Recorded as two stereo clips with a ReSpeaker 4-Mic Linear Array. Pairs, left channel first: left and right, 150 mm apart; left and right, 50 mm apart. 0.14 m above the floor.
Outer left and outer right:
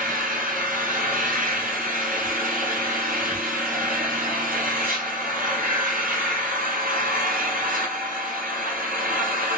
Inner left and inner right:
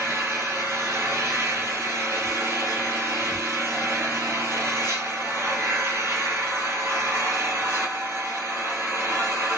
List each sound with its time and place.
0.0 s an engine running: 75° right (ahead or behind), 1.5 m